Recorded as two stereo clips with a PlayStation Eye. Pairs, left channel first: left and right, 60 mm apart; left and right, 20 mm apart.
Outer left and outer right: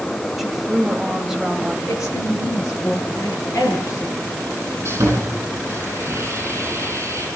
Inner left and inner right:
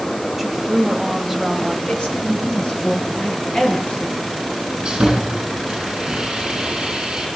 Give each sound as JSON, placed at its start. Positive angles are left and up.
{"t": 0.4, "sound": "a woman speaking", "side_deg": -10, "distance_m": 2.5}
{"t": 1.9, "sound": "a woman speaking", "side_deg": 55, "distance_m": 8.0}
{"t": 4.8, "sound": "sawing", "side_deg": -50, "distance_m": 9.0}